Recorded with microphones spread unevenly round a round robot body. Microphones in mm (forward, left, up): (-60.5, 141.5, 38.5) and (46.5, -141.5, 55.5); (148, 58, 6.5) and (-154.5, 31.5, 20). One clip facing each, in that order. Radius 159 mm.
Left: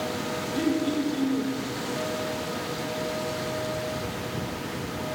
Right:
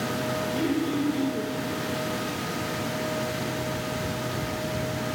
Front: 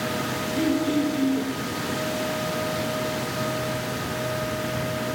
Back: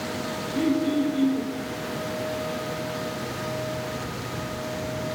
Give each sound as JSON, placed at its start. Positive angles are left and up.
{"t": 0.5, "sound": "throat clearing", "azimuth_deg": 60, "distance_m": 3.0}